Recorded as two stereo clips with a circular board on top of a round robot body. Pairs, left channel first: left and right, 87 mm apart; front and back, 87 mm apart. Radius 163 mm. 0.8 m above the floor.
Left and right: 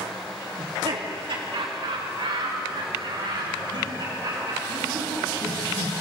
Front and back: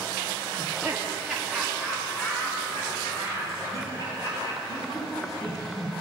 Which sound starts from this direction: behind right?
Laughter, at 0.6 s.